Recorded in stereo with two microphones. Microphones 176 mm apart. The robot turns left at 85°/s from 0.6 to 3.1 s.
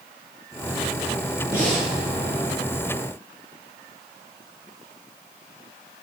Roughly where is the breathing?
Ahead.